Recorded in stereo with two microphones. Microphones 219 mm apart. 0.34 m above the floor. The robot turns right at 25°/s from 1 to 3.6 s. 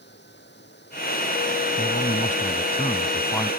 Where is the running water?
125° left; by 3.6 s 170° right.